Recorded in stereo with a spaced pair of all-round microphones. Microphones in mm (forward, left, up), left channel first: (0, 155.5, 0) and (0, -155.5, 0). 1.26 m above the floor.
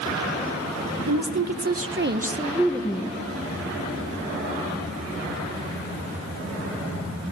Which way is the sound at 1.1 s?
70° right (ahead or behind).